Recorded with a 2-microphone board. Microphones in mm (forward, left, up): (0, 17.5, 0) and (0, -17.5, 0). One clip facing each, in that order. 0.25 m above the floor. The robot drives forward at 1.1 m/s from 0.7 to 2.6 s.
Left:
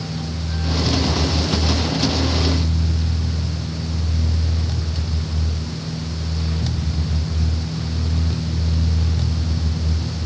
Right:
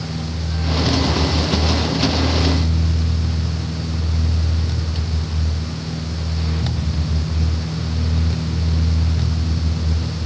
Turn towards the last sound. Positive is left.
No sound to turn to.